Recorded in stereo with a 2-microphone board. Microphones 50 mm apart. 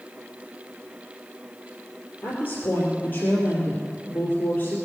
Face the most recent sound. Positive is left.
turn(degrees=40)  # may be behind; listen again after turning